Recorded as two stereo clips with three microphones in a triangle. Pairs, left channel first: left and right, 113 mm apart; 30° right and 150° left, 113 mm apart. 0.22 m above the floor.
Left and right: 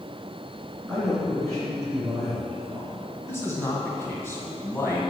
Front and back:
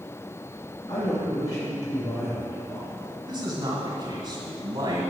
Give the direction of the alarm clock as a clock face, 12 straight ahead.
I don't hear an alarm clock.